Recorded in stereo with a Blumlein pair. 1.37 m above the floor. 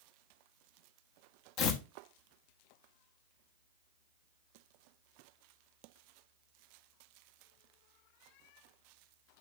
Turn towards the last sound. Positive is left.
turn(degrees=40)